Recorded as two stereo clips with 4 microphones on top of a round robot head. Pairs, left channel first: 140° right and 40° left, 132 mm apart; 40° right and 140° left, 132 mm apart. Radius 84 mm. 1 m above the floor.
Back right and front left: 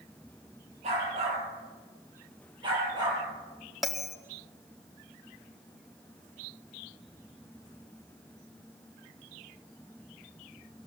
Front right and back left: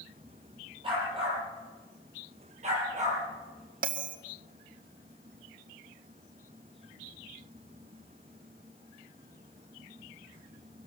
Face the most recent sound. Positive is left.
turn(degrees=130)